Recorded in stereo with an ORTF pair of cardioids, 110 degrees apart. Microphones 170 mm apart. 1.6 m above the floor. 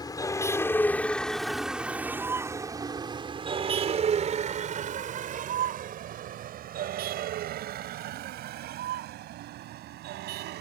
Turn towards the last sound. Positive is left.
turn(degrees=-75)